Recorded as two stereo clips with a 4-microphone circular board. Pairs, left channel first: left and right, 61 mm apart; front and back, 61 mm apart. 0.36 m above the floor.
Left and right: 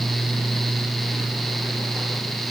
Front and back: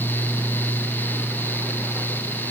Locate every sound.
Only background noise.